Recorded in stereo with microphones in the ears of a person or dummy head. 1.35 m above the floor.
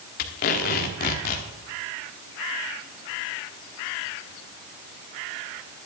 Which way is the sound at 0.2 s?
45° left (ahead or behind).